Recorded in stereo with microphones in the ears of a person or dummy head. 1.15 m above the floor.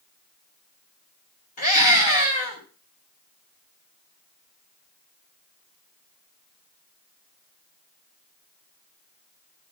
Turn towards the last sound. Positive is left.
turn(degrees=40)  # may be behind; listen again after turning